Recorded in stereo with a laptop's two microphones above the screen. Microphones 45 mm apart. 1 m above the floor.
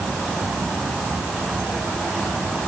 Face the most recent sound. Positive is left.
No sound to turn to.